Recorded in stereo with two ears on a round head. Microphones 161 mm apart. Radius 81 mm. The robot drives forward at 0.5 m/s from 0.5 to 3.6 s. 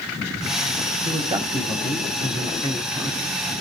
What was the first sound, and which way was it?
A man speaking, 25° right (ahead or behind).